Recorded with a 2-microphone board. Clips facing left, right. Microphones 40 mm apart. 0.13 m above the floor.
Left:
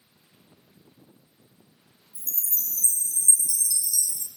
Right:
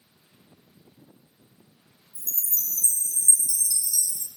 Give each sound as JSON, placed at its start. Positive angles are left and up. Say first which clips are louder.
{"t": 2.1, "sound": "a chime", "louder": "right 1 dB", "side_deg": 45, "distance_m": 1.6}